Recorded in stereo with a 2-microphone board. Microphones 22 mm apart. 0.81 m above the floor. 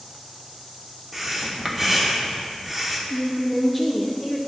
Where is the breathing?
15° right (ahead or behind), 0.7 m.